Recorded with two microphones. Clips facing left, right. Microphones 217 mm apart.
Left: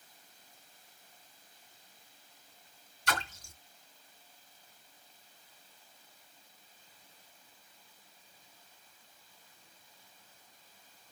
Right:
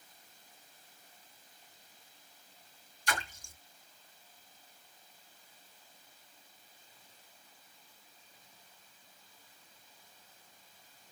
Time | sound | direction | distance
3.1 | a splash | 75° left (ahead or behind) | 3 m